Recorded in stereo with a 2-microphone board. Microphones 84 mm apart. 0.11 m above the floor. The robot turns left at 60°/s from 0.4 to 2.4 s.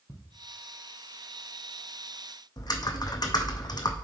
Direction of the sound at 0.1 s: 40° left (ahead or behind).